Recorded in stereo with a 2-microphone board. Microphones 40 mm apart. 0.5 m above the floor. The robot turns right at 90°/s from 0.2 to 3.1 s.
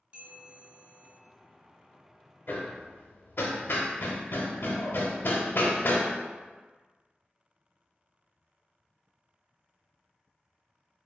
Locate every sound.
0.1 s a bell: 35° right, 1.7 m; by 1.2 s 50° left, 1.7 m
2.5 s hammering: 55° left (ahead or behind), 0.6 m; by 6.1 s 70° left (ahead or behind), 0.6 m